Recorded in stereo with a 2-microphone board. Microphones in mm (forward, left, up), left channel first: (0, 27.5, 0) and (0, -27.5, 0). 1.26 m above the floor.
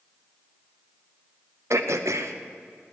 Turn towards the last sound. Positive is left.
turn(degrees=-70)  # may be behind; listen again after turning